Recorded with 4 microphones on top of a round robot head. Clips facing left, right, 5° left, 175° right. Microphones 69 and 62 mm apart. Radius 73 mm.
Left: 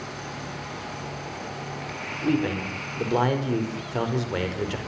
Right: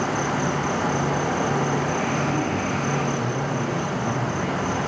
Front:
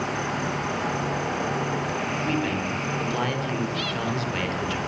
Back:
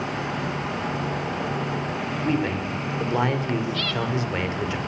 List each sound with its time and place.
0.0 s an insect: 80° right, 1.0 m
2.2 s a man speaking: 120° left, 5 m